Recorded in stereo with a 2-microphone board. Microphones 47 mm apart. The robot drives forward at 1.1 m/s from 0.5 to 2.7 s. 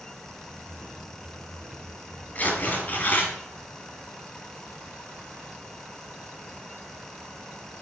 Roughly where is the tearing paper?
Left.